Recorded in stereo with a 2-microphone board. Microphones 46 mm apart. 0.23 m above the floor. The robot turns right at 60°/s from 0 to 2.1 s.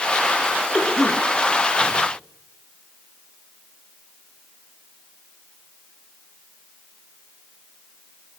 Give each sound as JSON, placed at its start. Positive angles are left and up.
{"t": 0.7, "sound": "a cough", "side_deg": 0, "distance_m": 4.0}